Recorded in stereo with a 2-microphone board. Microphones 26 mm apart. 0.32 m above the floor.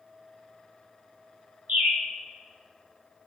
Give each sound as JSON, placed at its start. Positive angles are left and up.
{"t": 1.7, "sound": "a bird", "side_deg": -70, "distance_m": 3.0}